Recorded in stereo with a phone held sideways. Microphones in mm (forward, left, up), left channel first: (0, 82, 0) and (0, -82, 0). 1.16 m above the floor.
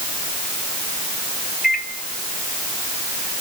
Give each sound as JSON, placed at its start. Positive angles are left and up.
{"t": 1.6, "sound": "a microwave", "side_deg": 55, "distance_m": 1.7}